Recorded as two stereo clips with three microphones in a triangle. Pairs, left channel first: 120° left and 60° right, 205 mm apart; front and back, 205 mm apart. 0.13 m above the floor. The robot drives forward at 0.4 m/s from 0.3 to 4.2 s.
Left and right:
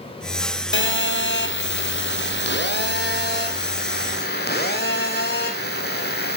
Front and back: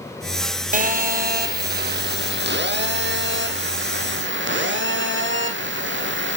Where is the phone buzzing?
130° left, 1.3 m; by 6.4 s 160° left, 2.5 m.